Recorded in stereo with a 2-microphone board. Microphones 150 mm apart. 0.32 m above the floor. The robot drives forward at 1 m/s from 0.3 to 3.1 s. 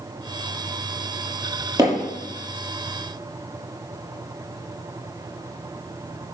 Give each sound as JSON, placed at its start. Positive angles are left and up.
{"t": 1.8, "sound": "hammering", "side_deg": -20, "distance_m": 6.0}